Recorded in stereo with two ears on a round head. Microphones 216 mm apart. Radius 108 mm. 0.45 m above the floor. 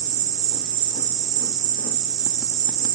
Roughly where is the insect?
Right.